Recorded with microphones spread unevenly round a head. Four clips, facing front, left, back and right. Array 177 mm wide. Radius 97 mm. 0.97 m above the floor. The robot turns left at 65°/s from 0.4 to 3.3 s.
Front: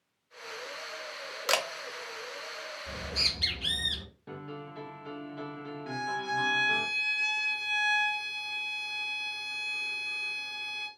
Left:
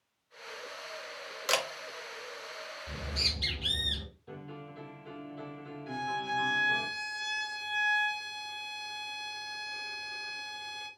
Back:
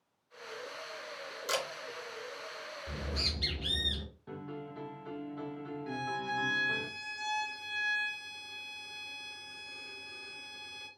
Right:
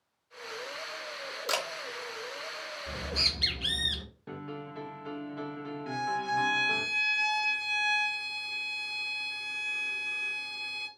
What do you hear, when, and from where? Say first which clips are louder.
1.5 s a camera shutter: left 2 dB, front 5 dB; 15° left, 0.8 m; by 1.7 s 5° left, 0.8 m
2.9 s a bird: right 5 dB, back 1 dB; 20° right, 2 m; by 4.0 s 50° right, 2 m
4.3 s a piano: right 6 dB, front 2 dB; 55° right, 1.1 m
5.9 s a violin: right 3 dB, front 3 dB; 55° right, 1.8 m